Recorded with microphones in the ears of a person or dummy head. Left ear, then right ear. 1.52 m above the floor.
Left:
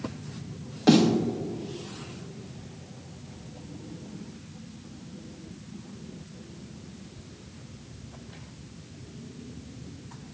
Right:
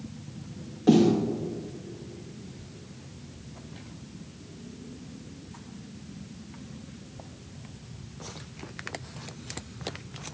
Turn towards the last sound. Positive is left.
turn(degrees=45)  # may be behind; listen again after turning